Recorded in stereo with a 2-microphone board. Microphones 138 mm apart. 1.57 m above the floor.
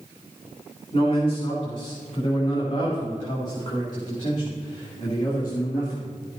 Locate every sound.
0.9 s a man speaking: 40° left (ahead or behind), 6 m; by 6.1 s 20° left (ahead or behind), 2.5 m